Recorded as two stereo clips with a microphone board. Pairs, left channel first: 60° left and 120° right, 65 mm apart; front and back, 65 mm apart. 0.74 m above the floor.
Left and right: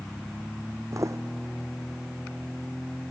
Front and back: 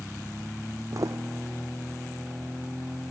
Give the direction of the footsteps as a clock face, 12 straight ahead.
5 o'clock.